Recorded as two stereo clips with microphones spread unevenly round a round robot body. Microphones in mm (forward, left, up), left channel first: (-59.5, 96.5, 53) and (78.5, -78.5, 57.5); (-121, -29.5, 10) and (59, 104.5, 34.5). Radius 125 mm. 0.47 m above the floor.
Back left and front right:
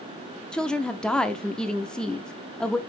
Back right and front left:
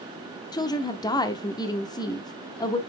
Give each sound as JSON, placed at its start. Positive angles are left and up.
{"t": 0.5, "sound": "a woman speaking", "azimuth_deg": -155, "distance_m": 0.7}